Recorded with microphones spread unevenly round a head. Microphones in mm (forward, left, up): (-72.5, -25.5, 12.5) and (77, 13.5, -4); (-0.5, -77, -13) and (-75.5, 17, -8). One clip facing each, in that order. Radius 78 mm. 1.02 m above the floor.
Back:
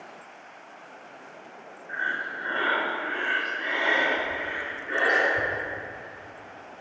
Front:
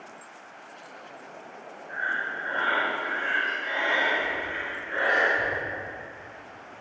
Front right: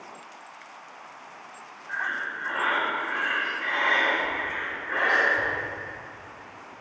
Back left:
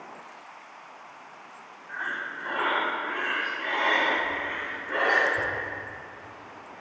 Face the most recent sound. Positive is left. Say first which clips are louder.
# even, front right 2 dB
turn(degrees=-170)